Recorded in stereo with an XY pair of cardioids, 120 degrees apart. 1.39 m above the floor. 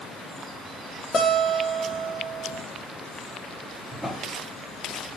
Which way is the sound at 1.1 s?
35° left.